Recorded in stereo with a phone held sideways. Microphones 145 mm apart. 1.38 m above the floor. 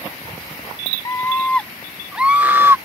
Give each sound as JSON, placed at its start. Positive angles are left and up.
{"t": 1.1, "sound": "a scream", "side_deg": 20}